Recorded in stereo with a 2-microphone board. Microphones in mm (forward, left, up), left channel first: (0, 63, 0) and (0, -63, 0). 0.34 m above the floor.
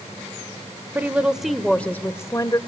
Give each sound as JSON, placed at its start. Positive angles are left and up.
{"t": 0.9, "sound": "a woman speaking", "side_deg": -15, "distance_m": 1.0}